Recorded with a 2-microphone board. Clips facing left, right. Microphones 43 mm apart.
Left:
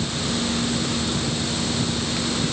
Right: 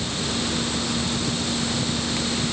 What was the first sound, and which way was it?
Only background noise.